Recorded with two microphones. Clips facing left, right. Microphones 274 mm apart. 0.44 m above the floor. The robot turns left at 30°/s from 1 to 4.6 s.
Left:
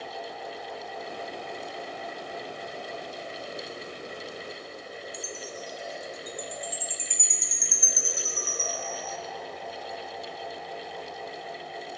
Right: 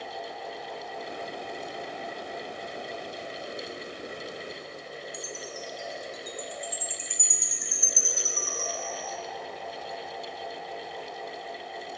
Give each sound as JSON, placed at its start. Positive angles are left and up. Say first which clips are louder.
{"t": 5.1, "sound": "a chime", "louder": "even", "side_deg": -50, "distance_m": 1.7}